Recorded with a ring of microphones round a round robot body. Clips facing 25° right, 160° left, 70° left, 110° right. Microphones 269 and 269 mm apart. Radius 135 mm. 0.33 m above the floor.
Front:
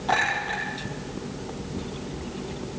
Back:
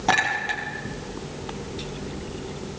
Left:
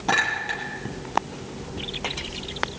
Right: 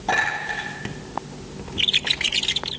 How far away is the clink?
About 7 m.